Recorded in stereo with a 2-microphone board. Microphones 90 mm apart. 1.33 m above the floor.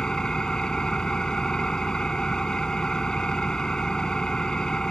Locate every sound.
0.0 s an engine running: 10° left (ahead or behind)